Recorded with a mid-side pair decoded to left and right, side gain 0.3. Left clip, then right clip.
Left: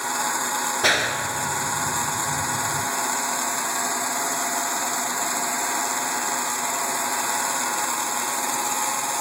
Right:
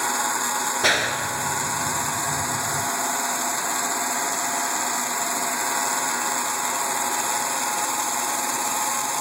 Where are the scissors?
No scissors in this recording.